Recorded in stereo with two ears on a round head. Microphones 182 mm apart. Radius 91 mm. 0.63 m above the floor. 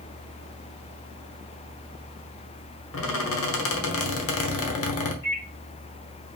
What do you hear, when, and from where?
2.9 s a squeak: 75° left (ahead or behind), 1.1 m
5.2 s a microwave: 55° left (ahead or behind), 2 m